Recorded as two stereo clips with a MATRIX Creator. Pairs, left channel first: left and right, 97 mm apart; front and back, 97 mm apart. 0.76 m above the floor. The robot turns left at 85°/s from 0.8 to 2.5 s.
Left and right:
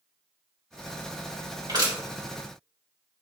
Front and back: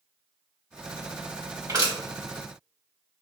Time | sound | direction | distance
1.7 | crushing | 120° right | 2.5 m